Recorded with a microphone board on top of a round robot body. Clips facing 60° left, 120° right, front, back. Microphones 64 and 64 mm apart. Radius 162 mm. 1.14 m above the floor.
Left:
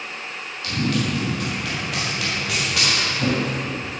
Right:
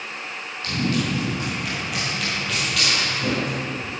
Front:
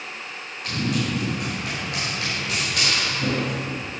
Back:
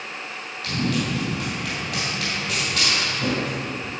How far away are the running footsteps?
About 3 m.